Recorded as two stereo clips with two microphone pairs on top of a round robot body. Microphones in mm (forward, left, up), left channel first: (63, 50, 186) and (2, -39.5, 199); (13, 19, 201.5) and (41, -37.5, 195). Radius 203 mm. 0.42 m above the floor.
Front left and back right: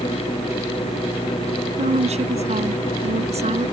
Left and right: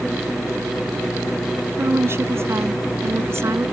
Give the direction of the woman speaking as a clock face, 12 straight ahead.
4 o'clock.